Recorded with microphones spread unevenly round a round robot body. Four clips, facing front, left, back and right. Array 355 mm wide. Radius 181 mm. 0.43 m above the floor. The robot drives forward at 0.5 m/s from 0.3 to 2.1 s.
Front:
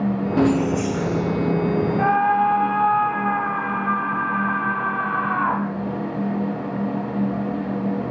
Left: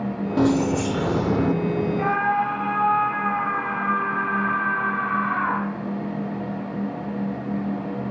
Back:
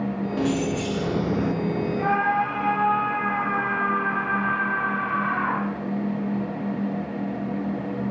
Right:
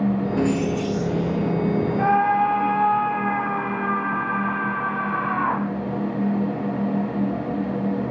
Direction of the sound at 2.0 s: 10° right.